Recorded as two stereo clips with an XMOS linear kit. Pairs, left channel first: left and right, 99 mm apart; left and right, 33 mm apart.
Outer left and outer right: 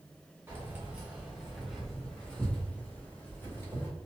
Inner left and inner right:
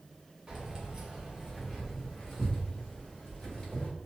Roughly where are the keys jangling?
Right.